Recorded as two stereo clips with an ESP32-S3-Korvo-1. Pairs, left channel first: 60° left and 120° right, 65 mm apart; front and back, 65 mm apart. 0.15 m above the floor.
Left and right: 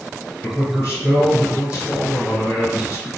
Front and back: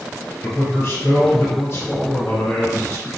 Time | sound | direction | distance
0.4 | a man speaking | 30° left | 1.9 m